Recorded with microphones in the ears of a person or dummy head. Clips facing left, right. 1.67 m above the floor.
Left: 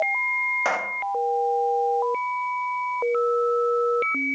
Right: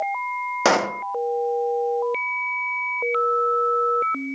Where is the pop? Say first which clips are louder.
Right 8 dB; 65° right (ahead or behind).